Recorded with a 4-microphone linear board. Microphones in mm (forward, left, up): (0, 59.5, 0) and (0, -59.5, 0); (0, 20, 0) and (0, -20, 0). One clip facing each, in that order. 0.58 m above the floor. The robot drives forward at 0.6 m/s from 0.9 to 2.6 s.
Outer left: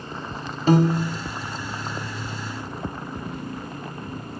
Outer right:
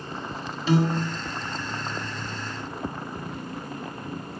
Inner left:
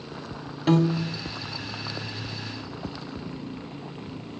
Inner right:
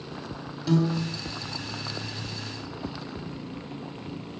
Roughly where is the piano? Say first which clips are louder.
Outer left 4 dB, inner left 3 dB; left.